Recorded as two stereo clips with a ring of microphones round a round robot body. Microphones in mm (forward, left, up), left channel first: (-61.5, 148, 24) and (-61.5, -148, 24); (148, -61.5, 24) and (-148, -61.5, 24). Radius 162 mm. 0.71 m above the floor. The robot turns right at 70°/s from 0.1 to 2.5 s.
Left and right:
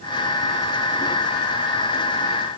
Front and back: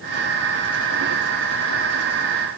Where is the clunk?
No clunk in this recording.